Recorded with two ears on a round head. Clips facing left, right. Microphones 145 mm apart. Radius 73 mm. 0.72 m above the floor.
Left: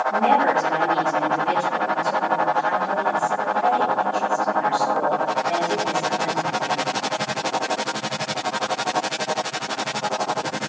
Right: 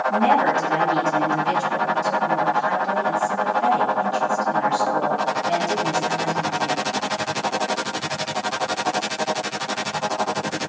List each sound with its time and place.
0.1 s a woman speaking: 45° right (ahead or behind), 5 m